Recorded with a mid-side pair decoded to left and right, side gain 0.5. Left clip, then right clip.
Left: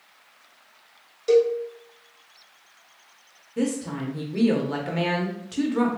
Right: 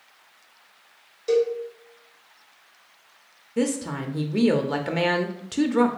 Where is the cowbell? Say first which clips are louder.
Left 3 dB; 15° left, 1.3 m.